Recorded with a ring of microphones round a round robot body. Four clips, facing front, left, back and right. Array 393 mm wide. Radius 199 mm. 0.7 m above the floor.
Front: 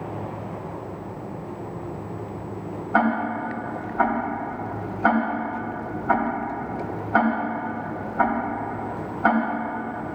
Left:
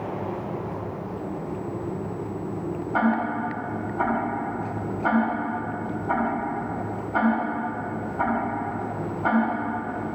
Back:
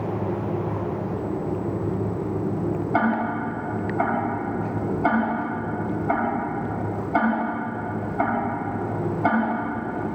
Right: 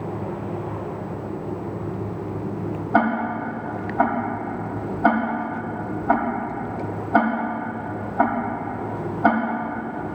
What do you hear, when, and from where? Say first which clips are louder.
2.9 s ticking: right 3 dB, front 3 dB; 75° right, 4 m